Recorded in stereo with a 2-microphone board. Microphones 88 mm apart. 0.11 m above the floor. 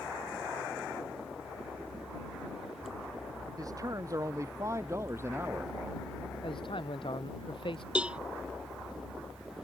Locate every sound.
3.6 s a man speaking: 45° right (ahead or behind); by 5.8 s 25° right (ahead or behind)
6.4 s a man speaking: 75° left (ahead or behind)
8.0 s a cowbell: 10° right (ahead or behind)